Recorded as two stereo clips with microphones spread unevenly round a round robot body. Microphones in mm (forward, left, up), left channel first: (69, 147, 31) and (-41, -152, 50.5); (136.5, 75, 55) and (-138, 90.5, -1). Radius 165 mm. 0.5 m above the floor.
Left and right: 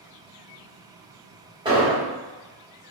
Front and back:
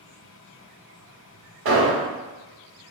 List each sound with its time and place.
1.6 s an explosion: 175° left, 1.0 m